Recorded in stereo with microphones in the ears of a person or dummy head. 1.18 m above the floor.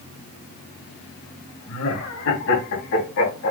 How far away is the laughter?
About 3 m.